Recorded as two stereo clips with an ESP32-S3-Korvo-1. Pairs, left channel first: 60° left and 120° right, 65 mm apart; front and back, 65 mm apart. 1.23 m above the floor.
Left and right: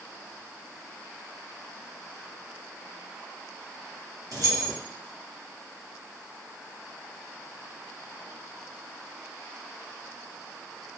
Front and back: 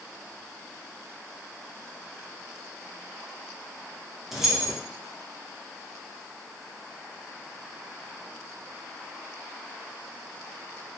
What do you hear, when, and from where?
4.3 s keys jangling: 95° right, 0.8 m